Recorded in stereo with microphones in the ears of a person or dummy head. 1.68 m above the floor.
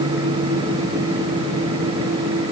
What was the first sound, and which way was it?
Only background noise.